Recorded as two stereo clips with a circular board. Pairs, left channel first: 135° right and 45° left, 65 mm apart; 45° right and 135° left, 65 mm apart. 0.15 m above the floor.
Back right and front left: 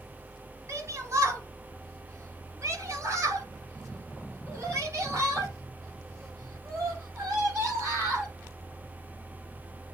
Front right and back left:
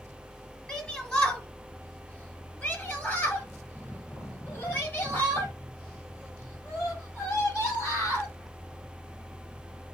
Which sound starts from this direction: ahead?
A shout, at 0.7 s.